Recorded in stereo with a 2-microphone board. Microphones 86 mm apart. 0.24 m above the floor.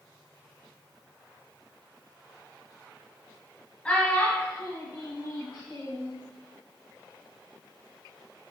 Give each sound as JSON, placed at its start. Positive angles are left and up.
{"t": 3.9, "sound": "a child speaking", "side_deg": 10, "distance_m": 1.0}